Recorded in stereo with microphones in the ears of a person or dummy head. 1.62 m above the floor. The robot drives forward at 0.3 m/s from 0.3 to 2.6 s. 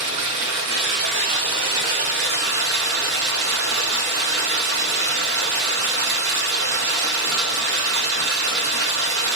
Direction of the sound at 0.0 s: 70° right (ahead or behind).